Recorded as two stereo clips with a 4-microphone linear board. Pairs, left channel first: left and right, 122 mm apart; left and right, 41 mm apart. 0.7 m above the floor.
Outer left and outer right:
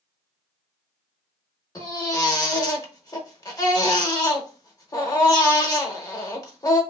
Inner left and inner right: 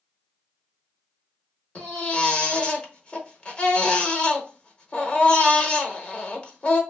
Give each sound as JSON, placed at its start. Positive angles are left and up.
{"t": 1.8, "sound": "a baby crying", "side_deg": 30, "distance_m": 0.6}